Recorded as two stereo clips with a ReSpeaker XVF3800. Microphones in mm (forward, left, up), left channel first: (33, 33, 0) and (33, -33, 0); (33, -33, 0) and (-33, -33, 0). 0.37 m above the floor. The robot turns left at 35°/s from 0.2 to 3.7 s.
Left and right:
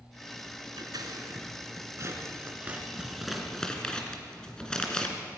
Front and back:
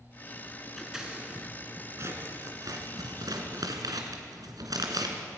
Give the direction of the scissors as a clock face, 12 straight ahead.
3 o'clock.